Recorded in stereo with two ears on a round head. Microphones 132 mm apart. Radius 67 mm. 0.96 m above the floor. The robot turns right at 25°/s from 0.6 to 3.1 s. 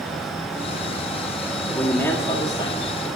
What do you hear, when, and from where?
1.7 s a man speaking: 5° left, 1.9 m; by 3.1 s 40° left, 1.9 m